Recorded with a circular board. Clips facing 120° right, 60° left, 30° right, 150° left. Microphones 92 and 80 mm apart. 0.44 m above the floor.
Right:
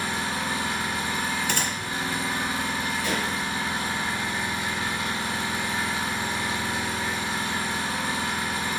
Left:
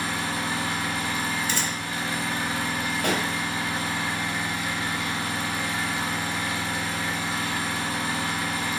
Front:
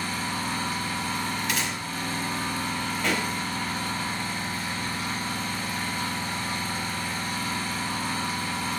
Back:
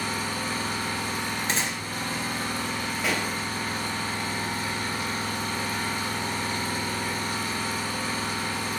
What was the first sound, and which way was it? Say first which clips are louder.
An engine running: even, even; 165° left.